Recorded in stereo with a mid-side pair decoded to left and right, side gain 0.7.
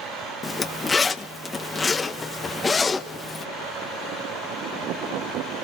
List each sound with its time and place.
0.4 s a zipper: 20° left, 1.2 m